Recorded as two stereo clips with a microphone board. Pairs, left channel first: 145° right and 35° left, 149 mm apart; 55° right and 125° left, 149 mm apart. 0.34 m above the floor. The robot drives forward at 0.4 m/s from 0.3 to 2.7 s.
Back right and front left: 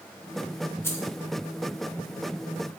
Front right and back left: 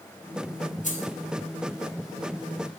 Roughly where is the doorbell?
No doorbell in this recording.